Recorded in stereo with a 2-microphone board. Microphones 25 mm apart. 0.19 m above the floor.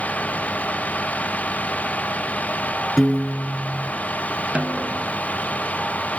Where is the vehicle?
80° left.